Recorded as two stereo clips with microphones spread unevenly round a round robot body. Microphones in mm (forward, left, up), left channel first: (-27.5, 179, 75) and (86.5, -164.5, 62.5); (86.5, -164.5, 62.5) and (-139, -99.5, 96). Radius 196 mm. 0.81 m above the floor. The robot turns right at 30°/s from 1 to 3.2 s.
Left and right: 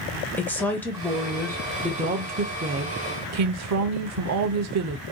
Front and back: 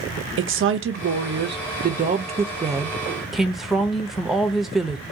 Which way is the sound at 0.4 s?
165° right.